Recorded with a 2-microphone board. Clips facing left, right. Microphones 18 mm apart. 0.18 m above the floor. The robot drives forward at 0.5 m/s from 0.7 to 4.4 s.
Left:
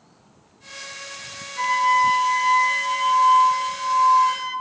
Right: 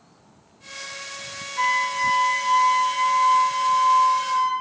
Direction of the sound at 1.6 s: Centre (ahead or behind).